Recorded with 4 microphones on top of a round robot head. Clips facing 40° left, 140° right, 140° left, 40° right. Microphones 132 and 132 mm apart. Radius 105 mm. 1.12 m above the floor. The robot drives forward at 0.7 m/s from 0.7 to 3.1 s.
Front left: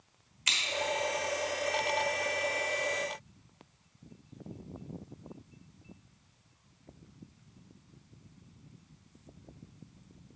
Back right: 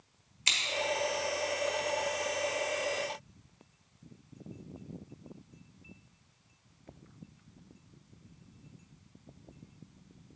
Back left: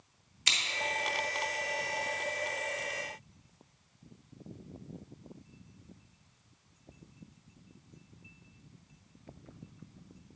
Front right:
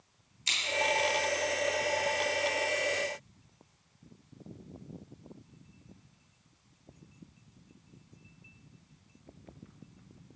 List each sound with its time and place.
0.5 s scissors: 160° left, 1.2 m